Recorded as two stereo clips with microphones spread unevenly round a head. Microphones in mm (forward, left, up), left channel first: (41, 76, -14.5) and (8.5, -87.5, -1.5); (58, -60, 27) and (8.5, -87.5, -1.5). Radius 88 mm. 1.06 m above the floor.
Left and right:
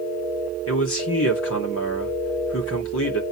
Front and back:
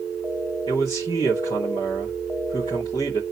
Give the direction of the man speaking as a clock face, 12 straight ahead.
9 o'clock.